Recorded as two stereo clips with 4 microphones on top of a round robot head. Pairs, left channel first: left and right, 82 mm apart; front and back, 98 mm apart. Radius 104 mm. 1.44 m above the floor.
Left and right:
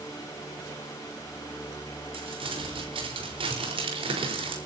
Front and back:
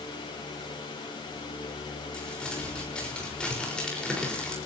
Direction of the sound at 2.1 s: 85° right.